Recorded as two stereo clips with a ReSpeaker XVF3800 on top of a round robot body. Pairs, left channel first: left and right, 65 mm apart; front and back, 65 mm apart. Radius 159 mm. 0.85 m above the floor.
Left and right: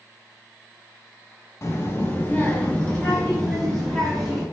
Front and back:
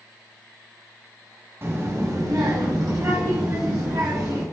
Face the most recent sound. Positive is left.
turn(degrees=175)